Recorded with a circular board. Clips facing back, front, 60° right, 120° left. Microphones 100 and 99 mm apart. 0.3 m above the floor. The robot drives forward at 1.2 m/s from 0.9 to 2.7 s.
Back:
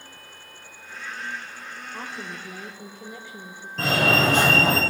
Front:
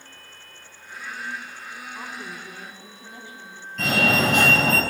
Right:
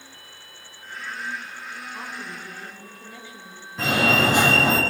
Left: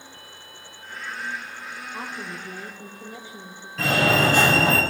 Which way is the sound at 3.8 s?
130° right.